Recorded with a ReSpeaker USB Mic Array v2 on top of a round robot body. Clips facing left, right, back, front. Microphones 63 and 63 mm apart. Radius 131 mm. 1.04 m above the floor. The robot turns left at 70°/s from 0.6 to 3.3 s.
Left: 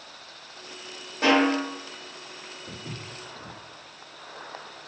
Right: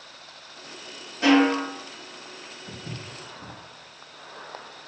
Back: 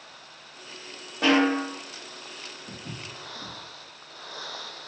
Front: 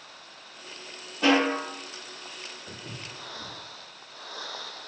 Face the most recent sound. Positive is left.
turn(degrees=10)